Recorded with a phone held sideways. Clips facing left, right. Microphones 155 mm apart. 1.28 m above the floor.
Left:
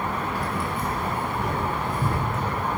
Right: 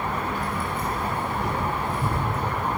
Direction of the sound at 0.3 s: 75° left (ahead or behind).